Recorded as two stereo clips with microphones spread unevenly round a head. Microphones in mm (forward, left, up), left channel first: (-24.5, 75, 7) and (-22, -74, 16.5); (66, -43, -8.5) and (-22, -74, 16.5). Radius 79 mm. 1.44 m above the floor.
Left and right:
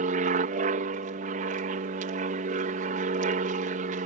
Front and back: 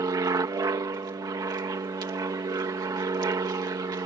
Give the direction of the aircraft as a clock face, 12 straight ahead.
4 o'clock.